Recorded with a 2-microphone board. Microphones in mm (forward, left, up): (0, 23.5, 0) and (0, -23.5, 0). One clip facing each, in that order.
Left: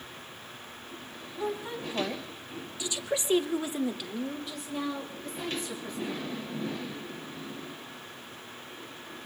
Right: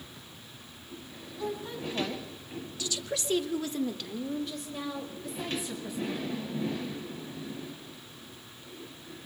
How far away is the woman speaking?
About 3 m.